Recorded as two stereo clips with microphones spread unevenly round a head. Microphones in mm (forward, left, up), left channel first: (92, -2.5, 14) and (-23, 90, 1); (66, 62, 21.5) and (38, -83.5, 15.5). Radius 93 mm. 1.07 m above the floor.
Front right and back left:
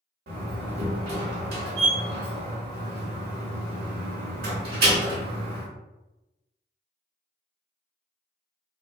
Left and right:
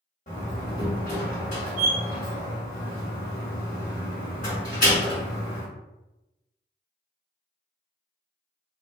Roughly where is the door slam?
Behind left.